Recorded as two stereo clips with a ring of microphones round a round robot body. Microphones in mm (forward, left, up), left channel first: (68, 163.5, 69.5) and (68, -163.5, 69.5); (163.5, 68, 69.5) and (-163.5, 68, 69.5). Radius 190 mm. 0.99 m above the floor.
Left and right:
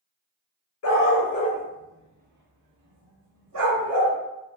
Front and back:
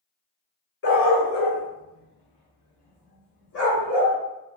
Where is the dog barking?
50° left, 0.8 m; by 4.2 s 65° right, 1.7 m.